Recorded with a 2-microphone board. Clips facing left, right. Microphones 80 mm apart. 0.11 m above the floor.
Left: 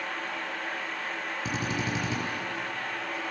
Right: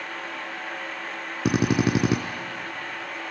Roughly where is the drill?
Right.